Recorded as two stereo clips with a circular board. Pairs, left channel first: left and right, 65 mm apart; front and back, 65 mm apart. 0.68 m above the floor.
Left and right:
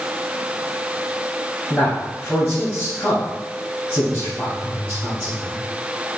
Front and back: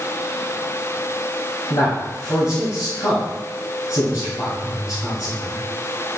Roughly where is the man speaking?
Ahead.